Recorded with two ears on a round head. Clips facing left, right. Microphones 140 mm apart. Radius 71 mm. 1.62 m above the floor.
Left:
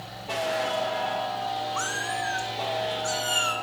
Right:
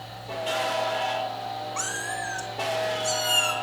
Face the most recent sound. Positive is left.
turn(degrees=-25)  # may be behind; listen again after turning